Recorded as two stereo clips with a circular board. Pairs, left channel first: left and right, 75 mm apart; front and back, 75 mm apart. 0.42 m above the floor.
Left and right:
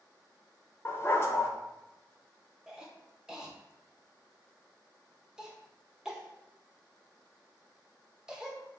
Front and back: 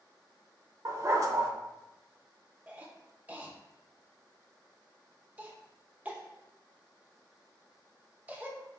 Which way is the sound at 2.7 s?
155° right.